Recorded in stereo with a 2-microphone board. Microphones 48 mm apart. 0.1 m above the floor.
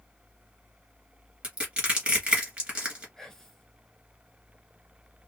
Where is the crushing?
25° right (ahead or behind), 1.9 m.